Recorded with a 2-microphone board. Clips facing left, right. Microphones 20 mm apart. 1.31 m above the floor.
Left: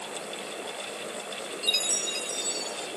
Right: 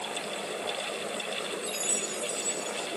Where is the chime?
70° left (ahead or behind).